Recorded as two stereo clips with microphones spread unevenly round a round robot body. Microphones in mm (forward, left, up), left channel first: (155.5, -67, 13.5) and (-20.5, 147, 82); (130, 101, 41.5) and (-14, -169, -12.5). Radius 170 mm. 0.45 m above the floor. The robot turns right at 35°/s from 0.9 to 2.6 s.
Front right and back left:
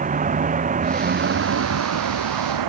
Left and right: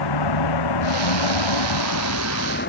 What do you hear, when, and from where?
0.0 s a vehicle: 65° left; by 2.7 s 125° left